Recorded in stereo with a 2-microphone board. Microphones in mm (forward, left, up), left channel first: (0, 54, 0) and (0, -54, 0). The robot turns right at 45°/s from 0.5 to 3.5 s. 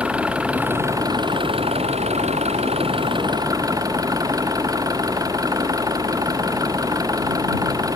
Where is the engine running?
170° right; by 8.0 s 35° right.